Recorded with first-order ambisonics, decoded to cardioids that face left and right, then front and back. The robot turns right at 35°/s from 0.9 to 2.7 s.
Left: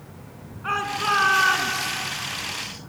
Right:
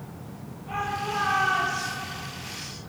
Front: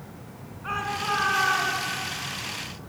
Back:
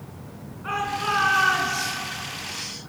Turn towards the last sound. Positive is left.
turn(degrees=155)